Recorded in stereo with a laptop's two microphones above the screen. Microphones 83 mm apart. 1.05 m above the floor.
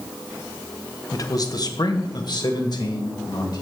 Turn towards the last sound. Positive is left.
turn(degrees=50)  # may be behind; listen again after turning